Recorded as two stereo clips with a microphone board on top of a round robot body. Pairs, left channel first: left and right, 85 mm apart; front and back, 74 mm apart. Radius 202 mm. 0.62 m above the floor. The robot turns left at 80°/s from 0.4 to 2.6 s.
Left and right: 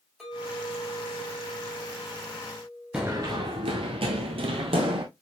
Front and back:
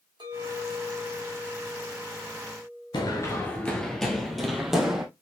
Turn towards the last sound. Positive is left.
turn(degrees=-95)